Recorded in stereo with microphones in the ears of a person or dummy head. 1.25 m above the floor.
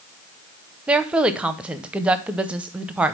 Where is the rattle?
No rattle in this recording.